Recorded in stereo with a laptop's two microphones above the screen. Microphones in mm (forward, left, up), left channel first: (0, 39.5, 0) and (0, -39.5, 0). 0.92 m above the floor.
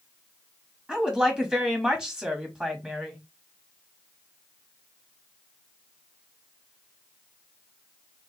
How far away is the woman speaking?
About 1.6 m.